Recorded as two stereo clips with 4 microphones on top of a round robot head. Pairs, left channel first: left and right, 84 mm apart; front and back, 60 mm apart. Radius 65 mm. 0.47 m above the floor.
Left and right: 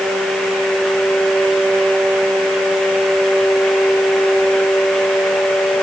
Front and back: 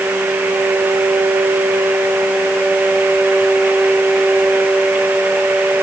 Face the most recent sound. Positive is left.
No sound to turn to.